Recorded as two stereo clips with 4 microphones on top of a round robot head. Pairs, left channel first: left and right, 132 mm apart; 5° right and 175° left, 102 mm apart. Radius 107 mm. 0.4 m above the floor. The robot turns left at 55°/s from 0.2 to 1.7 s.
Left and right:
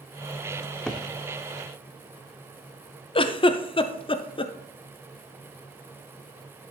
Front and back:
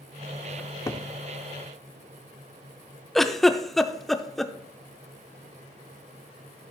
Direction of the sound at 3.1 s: 80° left.